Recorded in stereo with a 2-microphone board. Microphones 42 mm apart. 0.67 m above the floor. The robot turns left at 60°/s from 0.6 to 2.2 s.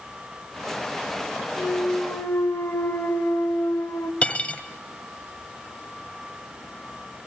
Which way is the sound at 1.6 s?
115° left.